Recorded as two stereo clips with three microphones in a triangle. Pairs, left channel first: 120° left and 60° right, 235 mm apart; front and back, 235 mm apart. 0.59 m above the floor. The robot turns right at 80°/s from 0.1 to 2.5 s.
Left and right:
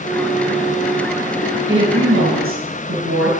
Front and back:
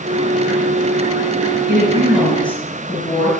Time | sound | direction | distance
1.7 | a woman speaking | 130° right | 7.5 m